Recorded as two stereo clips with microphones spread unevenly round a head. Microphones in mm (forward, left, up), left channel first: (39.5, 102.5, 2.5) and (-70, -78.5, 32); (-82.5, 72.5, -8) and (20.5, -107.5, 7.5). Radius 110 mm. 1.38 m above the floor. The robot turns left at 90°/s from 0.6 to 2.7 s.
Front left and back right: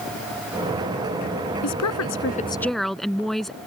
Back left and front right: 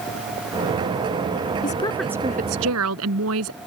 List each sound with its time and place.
1.6 s a woman speaking: 65° left; by 3.6 s 30° right